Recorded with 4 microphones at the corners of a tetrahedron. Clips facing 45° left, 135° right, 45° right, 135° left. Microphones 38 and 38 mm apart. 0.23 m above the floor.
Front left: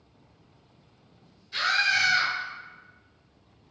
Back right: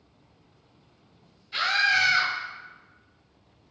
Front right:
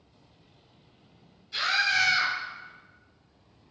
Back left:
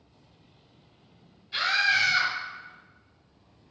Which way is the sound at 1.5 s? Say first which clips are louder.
Back right 1 dB, back left 1 dB; 170° left.